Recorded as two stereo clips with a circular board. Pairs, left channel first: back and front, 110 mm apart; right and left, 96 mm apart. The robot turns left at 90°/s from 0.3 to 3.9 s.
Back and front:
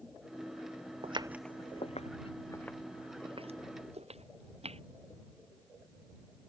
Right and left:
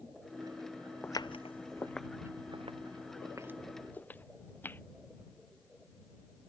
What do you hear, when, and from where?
1.0 s footsteps: 20° right